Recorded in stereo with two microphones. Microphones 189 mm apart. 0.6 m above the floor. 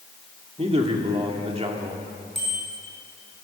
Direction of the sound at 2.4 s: 80° right.